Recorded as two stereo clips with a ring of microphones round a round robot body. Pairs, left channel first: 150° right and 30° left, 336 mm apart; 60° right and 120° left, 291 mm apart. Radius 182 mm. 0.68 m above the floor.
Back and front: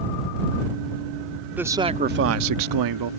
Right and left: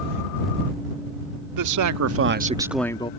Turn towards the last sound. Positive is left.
turn(degrees=10)